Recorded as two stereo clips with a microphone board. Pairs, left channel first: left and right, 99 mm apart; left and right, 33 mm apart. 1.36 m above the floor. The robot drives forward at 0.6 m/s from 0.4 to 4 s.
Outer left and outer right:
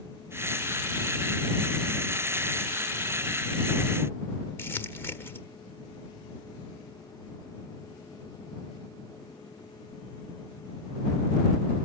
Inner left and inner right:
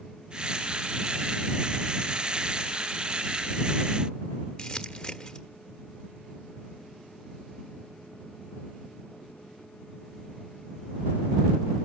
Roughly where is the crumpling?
Left.